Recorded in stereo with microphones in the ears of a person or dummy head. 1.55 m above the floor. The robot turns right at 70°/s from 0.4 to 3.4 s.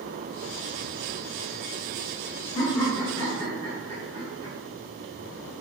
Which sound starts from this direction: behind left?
Laughter, at 2.5 s.